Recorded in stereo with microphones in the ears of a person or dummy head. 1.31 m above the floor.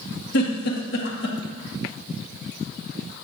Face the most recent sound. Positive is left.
turn(degrees=65)  # may be behind; listen again after turning